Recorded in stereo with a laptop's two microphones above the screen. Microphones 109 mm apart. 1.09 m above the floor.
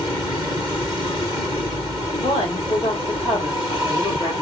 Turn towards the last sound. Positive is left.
turn(degrees=60)  # may be behind; listen again after turning